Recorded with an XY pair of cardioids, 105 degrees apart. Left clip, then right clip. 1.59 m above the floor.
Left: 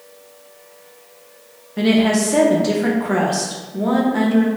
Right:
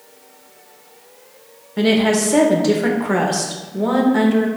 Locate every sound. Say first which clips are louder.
1.8 s a woman speaking: right 1 dB; 20° right, 0.6 m